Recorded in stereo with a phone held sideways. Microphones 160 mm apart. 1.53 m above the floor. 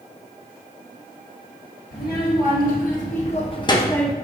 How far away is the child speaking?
About 1.9 m.